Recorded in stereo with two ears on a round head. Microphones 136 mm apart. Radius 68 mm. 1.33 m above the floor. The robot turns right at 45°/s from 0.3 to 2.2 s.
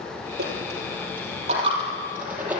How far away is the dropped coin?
About 6 m.